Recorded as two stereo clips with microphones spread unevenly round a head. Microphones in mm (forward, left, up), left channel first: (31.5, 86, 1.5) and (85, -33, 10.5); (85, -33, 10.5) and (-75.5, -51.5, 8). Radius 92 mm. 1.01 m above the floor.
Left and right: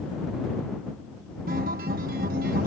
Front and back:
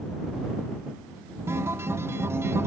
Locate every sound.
1.5 s a guitar: 100° right